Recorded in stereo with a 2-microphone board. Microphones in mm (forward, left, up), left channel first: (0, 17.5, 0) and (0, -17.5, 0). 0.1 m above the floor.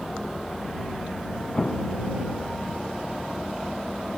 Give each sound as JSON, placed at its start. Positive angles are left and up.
{"t": 1.6, "sound": "an explosion", "side_deg": 25}